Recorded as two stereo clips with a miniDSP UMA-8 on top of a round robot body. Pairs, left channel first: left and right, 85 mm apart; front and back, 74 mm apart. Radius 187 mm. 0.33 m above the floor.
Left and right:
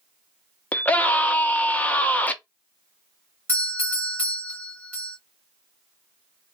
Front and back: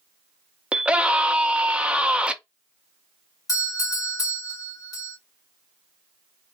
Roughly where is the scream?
Behind left.